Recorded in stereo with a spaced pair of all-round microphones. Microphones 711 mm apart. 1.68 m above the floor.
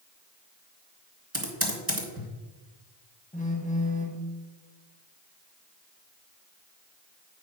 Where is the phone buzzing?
10° left (ahead or behind), 1.2 m.